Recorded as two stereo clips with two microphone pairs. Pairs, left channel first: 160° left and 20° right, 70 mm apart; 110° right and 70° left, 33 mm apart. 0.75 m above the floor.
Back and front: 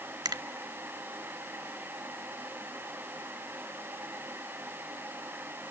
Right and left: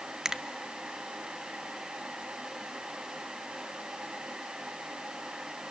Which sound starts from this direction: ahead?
A finger snap, at 0.2 s.